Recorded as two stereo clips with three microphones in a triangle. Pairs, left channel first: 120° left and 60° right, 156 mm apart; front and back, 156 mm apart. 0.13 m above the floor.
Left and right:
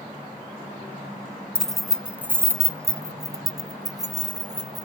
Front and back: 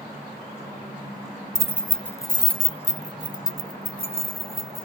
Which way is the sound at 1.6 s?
170° right.